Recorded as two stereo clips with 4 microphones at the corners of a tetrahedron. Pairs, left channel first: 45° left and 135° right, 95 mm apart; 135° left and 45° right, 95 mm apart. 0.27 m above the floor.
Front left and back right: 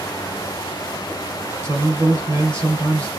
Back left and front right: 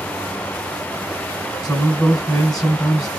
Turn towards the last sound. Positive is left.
turn(degrees=-150)